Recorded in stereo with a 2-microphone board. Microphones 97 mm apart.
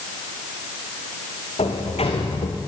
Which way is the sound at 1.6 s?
85° left.